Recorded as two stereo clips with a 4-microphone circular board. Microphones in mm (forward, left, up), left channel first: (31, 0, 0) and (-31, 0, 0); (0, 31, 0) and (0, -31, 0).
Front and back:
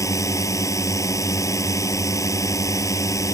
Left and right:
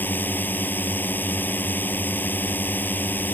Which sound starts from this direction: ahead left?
A drone, at 0.0 s.